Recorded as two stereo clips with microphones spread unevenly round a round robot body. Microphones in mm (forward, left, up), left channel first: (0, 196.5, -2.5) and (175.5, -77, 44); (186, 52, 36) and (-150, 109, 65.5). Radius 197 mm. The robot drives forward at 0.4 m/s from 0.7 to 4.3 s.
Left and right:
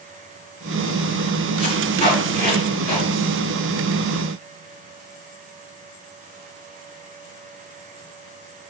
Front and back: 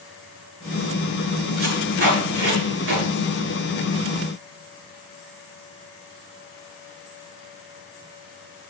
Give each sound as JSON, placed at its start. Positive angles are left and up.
{"t": 1.6, "sound": "tape being pulled", "azimuth_deg": -125, "distance_m": 7.0}